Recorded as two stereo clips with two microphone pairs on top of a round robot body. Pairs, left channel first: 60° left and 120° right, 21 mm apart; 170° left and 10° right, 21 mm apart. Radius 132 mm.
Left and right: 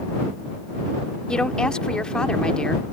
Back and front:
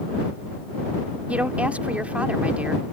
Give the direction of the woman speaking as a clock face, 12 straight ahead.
12 o'clock.